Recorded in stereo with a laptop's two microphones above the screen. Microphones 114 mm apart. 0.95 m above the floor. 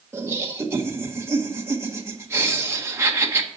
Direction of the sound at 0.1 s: 25° right (ahead or behind).